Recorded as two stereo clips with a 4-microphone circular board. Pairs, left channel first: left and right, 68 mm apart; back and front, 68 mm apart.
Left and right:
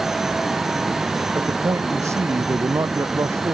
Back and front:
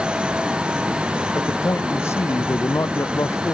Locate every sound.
1.4 s a man speaking: 135° right